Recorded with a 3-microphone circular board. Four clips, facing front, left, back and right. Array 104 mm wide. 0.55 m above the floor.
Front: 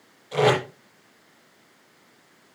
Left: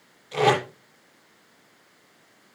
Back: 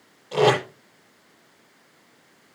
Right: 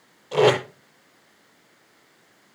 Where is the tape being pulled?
120° right, 7.5 m.